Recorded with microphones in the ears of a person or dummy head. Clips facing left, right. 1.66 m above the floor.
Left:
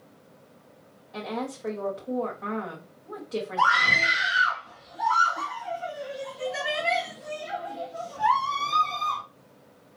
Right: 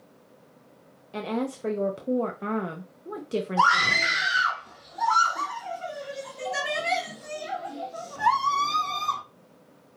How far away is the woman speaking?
About 0.6 m.